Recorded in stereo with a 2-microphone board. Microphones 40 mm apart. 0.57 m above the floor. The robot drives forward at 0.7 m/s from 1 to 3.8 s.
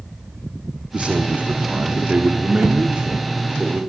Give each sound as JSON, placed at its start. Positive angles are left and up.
{"t": 0.9, "sound": "a man speaking", "side_deg": -30, "distance_m": 1.2}